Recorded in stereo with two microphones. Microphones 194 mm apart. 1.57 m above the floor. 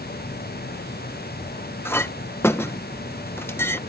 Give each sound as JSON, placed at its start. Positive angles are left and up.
{"t": 1.9, "sound": "a clink", "side_deg": 10}